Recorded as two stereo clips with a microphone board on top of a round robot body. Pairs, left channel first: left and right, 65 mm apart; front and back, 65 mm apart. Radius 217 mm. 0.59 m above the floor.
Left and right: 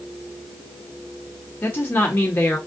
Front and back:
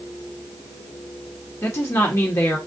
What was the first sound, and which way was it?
A woman speaking, 35° left.